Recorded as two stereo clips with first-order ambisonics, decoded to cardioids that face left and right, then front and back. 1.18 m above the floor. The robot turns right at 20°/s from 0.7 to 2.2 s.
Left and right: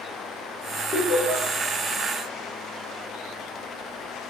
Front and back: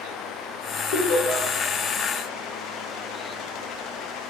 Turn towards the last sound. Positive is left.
turn(degrees=20)